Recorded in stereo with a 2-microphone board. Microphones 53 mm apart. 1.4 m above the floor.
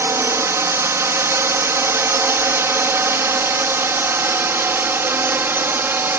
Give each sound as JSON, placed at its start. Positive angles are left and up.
{"t": 0.0, "sound": "a drone", "side_deg": -60}